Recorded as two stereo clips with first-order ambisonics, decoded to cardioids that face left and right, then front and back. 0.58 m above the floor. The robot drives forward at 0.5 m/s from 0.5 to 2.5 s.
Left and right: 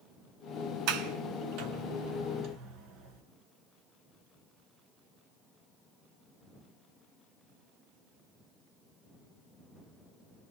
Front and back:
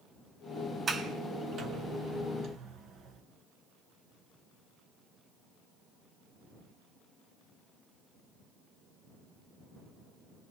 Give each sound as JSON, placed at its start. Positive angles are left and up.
{"t": 0.9, "sound": "a sliding door", "azimuth_deg": -110, "distance_m": 2.0}